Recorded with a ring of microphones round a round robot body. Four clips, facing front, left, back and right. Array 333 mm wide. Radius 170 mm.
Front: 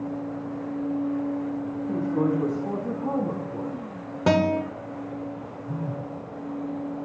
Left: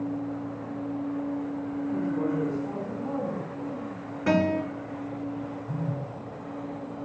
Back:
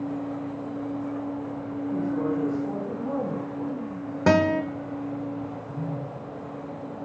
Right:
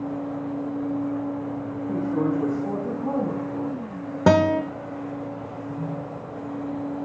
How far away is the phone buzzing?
About 4 m.